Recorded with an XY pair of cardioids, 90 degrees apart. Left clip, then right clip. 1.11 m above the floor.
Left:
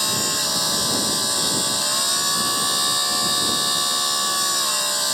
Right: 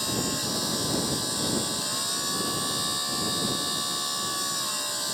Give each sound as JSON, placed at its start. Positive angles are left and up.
{"t": 0.0, "sound": "a machine running", "azimuth_deg": 55}